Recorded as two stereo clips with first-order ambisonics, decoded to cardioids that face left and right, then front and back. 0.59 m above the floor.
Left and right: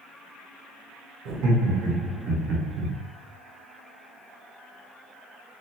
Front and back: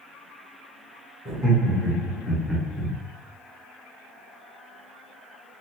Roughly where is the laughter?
Behind right.